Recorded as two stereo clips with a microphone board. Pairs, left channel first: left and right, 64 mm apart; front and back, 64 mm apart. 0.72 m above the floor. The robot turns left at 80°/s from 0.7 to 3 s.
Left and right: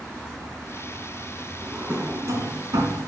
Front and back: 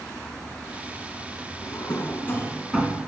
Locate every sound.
1.6 s a drawer: 5° right, 2.5 m; by 3.0 s 115° right, 2.5 m